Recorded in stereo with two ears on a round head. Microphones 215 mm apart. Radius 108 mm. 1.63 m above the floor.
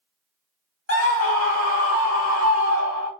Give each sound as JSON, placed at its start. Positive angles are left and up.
{"t": 0.9, "sound": "a scream", "side_deg": 60, "distance_m": 1.4}